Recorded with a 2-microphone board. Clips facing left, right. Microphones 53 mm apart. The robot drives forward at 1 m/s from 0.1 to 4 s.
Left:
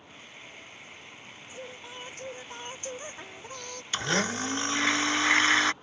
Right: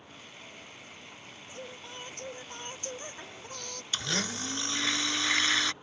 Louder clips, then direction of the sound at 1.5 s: Left 1 dB; 10° left (ahead or behind).